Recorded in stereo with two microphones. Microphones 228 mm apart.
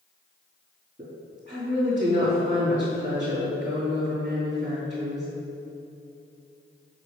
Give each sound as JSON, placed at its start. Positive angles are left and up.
{"t": 1.0, "sound": "a woman speaking", "side_deg": -30, "distance_m": 3.0}